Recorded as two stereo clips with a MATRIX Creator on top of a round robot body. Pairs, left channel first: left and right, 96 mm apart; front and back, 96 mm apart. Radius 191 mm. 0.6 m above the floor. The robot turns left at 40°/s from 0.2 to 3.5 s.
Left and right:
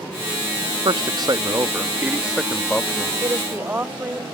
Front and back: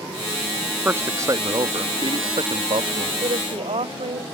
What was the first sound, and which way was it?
A man speaking, 115° right.